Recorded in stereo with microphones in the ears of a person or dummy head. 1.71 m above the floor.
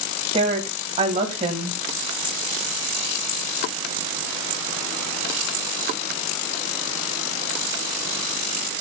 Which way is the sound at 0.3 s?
35° right (ahead or behind).